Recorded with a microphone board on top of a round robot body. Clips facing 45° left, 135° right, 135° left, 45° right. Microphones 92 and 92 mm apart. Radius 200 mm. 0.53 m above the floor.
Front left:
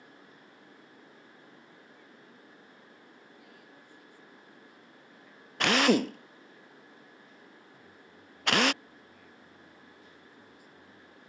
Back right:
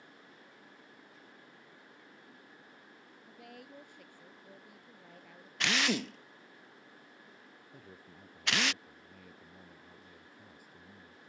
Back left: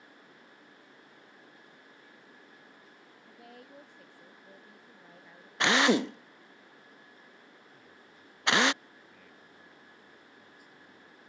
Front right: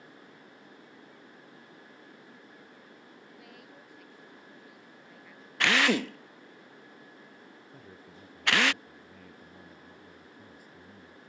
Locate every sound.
3.3 s a woman speaking: 165° right
5.6 s a drill: 70° left
7.7 s a man speaking: 95° right